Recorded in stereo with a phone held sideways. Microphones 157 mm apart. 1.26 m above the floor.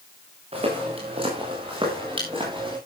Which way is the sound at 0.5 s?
40° right (ahead or behind).